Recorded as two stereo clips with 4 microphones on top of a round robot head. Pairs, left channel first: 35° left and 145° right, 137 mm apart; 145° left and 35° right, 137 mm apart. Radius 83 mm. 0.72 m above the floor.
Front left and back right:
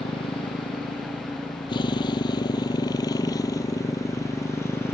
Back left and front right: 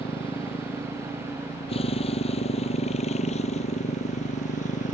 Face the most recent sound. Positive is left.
turn(degrees=110)